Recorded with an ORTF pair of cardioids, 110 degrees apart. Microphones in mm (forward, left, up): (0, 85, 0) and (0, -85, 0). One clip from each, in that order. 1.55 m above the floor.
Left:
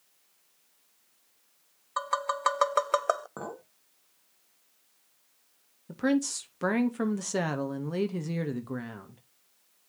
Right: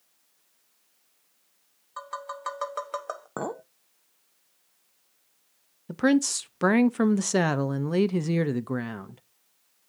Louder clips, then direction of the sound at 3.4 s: Right 7 dB; 50° right.